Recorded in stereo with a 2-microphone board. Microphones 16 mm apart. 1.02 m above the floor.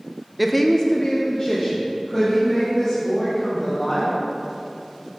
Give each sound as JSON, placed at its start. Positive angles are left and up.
{"t": 0.4, "sound": "a woman speaking", "side_deg": -10, "distance_m": 0.6}